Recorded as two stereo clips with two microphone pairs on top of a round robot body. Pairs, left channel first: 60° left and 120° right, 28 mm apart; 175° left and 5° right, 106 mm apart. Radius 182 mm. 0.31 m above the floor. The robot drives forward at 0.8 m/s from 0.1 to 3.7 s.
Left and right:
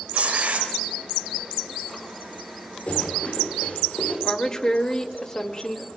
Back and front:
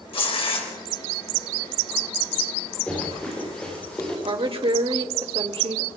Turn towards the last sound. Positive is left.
turn(degrees=5)